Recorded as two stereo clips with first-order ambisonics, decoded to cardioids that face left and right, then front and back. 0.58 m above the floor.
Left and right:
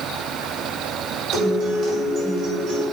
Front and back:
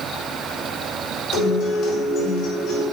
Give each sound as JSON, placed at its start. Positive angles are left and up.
{"t": 1.3, "sound": "a guitar", "azimuth_deg": -55, "distance_m": 4.0}